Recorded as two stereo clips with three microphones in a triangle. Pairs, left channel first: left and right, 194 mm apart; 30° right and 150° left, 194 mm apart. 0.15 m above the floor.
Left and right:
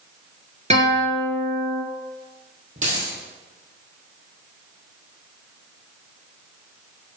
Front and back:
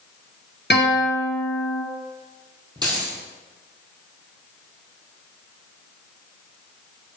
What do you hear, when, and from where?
0.7 s a guitar: 40° right, 1.8 m
2.8 s a dropped coin: 140° right, 2 m